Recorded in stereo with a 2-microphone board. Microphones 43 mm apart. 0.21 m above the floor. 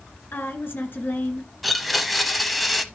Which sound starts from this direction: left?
A woman speaking, at 0.3 s.